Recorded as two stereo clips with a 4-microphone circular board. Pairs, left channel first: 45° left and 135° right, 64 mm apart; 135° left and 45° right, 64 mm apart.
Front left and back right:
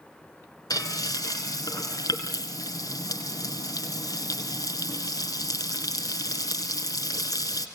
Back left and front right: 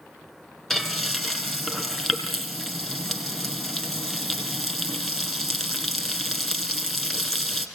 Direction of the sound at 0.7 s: 55° left.